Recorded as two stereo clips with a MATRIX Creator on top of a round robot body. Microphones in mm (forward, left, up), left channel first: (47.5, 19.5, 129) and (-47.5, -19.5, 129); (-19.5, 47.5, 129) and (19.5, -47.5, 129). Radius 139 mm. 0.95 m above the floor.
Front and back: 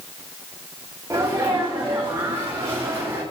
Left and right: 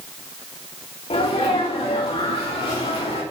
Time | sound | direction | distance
1.1 | a sneeze | 140° left | 3 m